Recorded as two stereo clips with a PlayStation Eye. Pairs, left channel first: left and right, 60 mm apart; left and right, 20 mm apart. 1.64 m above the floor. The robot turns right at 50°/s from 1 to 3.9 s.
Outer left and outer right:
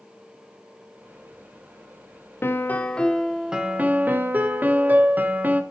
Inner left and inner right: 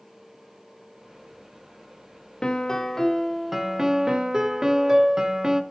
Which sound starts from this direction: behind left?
A piano, at 2.4 s.